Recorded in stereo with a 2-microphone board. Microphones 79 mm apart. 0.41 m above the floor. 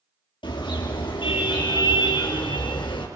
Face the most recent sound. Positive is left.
turn(degrees=85)